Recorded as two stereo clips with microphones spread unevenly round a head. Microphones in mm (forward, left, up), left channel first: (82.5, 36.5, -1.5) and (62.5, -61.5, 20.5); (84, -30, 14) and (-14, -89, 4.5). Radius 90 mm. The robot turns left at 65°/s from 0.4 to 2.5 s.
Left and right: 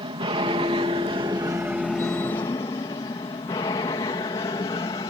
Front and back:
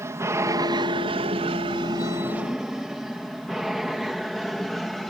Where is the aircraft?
90° right; by 5.1 s 120° left.